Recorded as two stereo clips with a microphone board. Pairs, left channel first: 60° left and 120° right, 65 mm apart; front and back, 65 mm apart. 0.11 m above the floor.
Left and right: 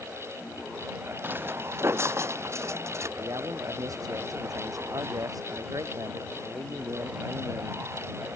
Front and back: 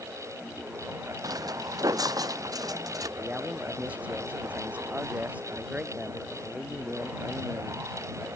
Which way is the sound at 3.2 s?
115° right.